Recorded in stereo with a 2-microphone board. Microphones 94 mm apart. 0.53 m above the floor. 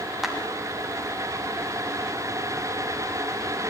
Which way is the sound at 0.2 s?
5° right (ahead or behind).